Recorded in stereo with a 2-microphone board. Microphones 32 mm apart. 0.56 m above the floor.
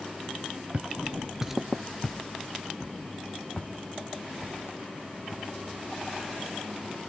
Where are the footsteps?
45° right (ahead or behind), 0.7 m; by 7.0 s 45° left (ahead or behind), 4 m.